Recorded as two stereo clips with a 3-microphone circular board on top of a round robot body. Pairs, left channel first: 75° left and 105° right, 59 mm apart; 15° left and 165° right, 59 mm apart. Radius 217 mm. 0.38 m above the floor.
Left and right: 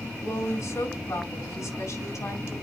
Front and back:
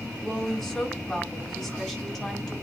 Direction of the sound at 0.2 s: 95° left.